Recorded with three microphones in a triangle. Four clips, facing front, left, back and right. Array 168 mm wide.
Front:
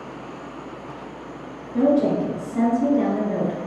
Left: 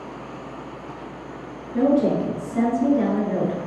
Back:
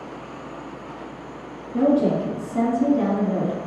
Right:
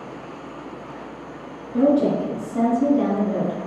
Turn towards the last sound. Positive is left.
turn(degrees=-120)